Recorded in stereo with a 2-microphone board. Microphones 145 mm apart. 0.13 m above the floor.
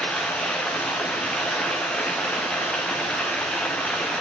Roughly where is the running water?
Centre.